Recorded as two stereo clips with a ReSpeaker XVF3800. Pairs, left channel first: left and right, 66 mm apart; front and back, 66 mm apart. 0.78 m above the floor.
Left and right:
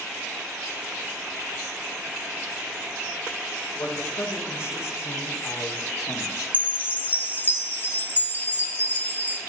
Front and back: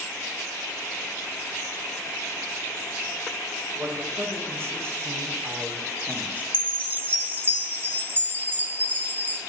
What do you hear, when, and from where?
3.8 s a man speaking: 140° left, 3.5 m; by 6.4 s 120° left, 2.0 m
6.5 s a chime: 135° left, 1.1 m